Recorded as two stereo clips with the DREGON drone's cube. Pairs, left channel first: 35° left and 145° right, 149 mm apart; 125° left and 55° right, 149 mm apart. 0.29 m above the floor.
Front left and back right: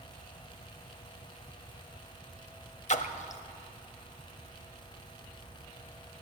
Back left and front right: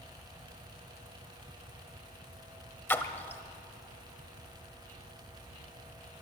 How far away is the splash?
About 0.6 m.